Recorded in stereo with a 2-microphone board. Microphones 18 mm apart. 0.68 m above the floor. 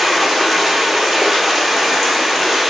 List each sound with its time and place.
0.0 s running water: 10° right (ahead or behind), 2 m